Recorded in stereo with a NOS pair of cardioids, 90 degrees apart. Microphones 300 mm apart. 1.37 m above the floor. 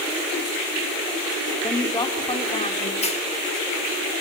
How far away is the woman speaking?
About 4 m.